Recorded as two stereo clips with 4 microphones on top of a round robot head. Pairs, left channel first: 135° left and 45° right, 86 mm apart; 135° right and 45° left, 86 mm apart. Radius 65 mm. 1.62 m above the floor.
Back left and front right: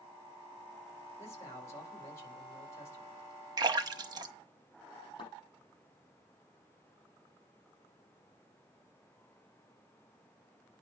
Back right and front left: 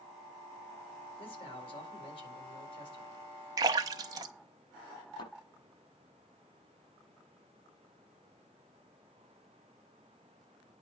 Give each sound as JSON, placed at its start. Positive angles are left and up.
{"t": 1.2, "sound": "a man speaking", "azimuth_deg": -165, "distance_m": 4.5}
{"t": 3.6, "sound": "a splash", "azimuth_deg": -5, "distance_m": 1.2}
{"t": 5.2, "sound": "a thud", "azimuth_deg": 180, "distance_m": 6.0}